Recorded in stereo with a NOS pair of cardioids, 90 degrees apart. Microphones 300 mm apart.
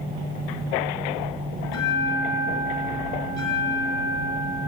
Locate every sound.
1.6 s a bell: 60° left, 7 m